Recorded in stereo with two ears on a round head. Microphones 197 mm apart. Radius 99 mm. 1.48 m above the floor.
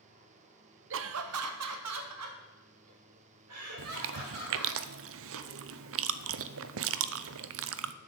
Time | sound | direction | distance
0.9 | laughter | 60° right (ahead or behind) | 0.8 m
3.8 | chewing | 65° right (ahead or behind) | 0.6 m